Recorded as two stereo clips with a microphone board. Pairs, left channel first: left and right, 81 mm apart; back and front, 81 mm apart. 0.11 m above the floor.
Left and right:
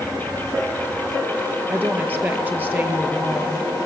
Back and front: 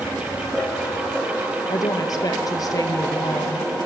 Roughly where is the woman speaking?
Behind right.